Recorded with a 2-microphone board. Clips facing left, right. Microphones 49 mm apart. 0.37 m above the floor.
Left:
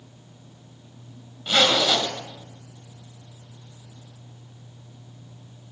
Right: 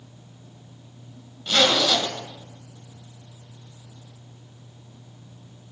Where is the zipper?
15° left (ahead or behind), 1.9 m.